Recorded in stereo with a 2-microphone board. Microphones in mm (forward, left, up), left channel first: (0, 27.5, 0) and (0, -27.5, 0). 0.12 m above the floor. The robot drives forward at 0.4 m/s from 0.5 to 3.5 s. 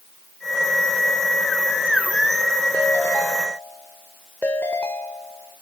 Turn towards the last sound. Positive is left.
turn(degrees=30)  # may be behind; listen again after turning